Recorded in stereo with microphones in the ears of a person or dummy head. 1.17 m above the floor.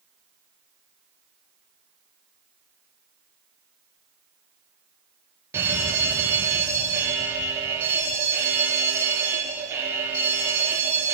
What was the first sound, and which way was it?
A fire alarm, 10° right (ahead or behind).